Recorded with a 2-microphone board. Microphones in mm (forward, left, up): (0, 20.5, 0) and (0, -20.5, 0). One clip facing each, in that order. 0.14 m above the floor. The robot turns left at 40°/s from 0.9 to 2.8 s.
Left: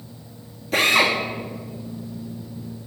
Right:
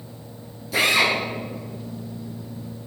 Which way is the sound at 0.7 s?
45° left (ahead or behind).